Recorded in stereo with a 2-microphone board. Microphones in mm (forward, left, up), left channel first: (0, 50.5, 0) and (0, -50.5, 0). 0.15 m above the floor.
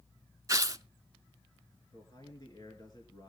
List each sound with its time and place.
0.5 s tearing paper: 35° right (ahead or behind), 0.6 m
1.9 s a man speaking: 45° left (ahead or behind), 2.5 m